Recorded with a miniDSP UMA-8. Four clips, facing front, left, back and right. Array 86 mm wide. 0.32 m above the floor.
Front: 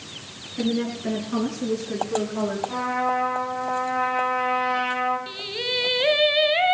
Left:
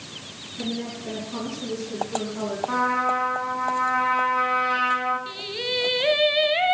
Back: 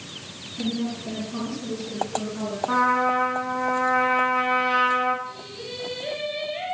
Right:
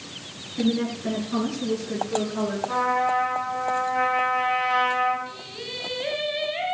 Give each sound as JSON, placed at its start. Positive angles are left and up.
{"t": 0.6, "sound": "a woman speaking", "azimuth_deg": -35, "distance_m": 4.0}
{"t": 2.7, "sound": "a trumpet", "azimuth_deg": 155, "distance_m": 8.5}
{"t": 5.3, "sound": "singing", "azimuth_deg": 30, "distance_m": 1.2}